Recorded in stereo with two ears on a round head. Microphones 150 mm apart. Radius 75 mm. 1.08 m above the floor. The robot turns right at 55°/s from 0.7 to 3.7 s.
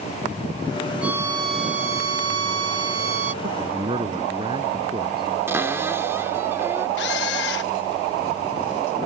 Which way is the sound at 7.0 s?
75° left (ahead or behind).